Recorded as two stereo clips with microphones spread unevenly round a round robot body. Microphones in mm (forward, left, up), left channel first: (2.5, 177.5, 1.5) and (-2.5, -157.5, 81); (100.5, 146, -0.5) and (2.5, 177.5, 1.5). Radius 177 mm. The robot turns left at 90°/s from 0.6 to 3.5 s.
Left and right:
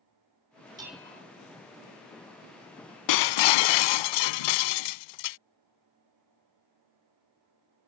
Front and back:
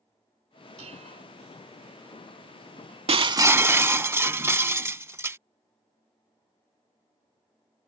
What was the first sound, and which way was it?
Dishes clattering, 170° right.